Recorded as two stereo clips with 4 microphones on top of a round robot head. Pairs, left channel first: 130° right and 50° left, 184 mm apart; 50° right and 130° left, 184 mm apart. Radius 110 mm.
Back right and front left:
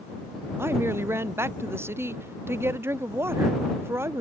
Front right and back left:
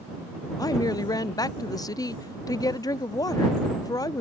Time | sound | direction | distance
0.6 | a woman speaking | 10° right | ?